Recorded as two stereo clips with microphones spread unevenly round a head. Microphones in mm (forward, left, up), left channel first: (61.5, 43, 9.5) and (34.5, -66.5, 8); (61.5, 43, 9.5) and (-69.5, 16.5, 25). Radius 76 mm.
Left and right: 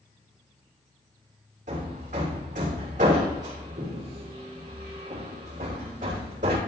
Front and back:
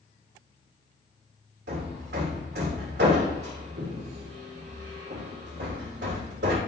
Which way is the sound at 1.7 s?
150° right.